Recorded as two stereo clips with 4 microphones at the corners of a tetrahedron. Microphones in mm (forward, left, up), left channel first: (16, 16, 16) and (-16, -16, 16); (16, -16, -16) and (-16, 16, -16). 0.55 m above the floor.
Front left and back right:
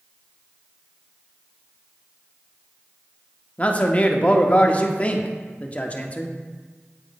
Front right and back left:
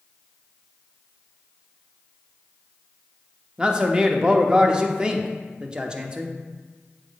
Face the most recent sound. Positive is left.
turn(degrees=80)